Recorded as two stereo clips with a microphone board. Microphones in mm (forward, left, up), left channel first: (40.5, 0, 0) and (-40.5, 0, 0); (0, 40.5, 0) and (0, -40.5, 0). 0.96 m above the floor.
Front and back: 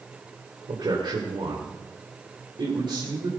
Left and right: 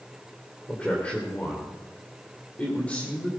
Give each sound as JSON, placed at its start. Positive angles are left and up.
{"t": 0.7, "sound": "a man speaking", "azimuth_deg": 165, "distance_m": 2.5}